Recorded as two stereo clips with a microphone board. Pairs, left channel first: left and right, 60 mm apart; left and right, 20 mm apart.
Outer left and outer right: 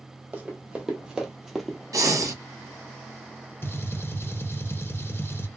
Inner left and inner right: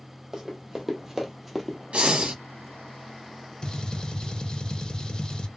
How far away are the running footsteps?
About 1.4 m.